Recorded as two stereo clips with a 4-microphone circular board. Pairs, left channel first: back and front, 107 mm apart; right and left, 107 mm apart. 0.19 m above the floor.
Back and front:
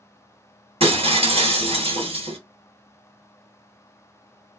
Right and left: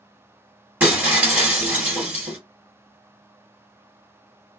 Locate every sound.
0.8 s breaking glass: 15° left, 1.7 m